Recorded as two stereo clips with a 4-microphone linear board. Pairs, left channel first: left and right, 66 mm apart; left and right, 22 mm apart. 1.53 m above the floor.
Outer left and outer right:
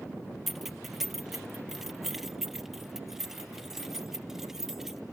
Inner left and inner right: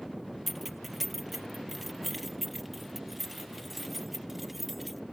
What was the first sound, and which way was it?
Keys jangling, centre (ahead or behind).